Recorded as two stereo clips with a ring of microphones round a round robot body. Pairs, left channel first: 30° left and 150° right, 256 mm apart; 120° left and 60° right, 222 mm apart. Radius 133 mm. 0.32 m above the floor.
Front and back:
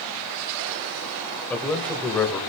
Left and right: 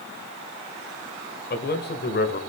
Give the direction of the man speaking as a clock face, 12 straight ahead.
8 o'clock.